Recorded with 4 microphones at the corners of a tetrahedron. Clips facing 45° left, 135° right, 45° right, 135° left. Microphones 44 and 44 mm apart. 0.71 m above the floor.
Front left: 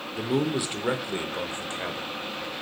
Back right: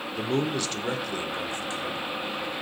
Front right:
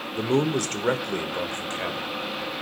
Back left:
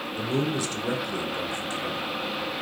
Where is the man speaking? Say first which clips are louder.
Front left 1 dB, front right 4 dB; 40° right, 2.0 m; by 2.2 s 5° right, 3 m.